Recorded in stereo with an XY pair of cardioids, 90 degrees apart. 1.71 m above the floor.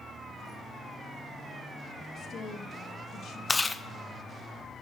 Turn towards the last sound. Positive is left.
turn(degrees=25)